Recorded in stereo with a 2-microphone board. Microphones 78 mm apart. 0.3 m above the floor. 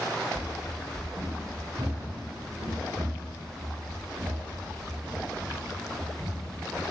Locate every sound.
0.3 s running footsteps: 45° right (ahead or behind), 3.5 m; by 6.8 s 55° right (ahead or behind), 4 m